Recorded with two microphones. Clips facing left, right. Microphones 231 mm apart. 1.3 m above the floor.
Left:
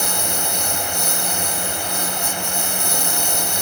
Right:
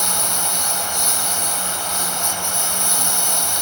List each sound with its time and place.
0.0 s a lawn mower: 55° left (ahead or behind)